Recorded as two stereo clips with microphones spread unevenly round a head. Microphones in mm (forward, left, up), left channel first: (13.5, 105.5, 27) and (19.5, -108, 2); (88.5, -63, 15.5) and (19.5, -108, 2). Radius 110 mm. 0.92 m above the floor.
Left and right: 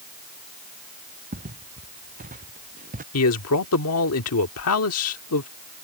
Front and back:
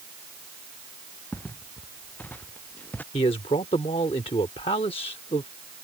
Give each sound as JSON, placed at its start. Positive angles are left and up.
{"t": 1.3, "sound": "footsteps", "azimuth_deg": -35}
{"t": 3.1, "sound": "a man speaking", "azimuth_deg": 75}